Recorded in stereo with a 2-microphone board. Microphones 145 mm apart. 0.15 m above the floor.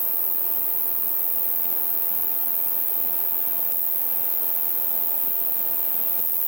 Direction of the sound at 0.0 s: Centre (ahead or behind).